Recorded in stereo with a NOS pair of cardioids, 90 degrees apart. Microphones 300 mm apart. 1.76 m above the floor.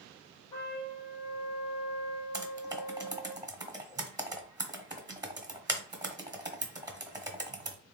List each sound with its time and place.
0.5 s a trumpet: 60° left, 1.8 m
2.3 s typing on a keyboard: 10° right, 1.3 m